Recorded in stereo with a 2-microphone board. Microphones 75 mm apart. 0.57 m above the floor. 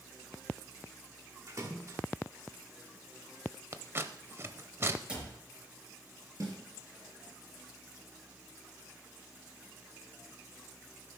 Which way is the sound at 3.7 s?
35° right (ahead or behind).